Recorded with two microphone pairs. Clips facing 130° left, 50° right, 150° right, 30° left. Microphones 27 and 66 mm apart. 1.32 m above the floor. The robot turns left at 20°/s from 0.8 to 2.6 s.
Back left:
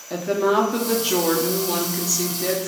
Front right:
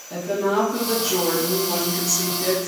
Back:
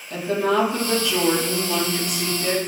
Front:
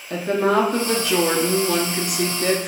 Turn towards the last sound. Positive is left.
turn(degrees=40)